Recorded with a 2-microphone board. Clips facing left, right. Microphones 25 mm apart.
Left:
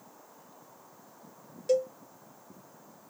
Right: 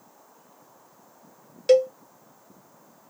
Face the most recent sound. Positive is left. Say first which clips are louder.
# right 9 dB
turn(degrees=-70)  # may be behind; listen again after turning